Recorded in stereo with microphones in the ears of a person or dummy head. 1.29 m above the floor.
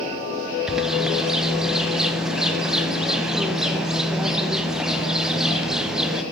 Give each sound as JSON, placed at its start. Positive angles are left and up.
{"t": 0.7, "sound": "a bird", "side_deg": -5, "distance_m": 0.9}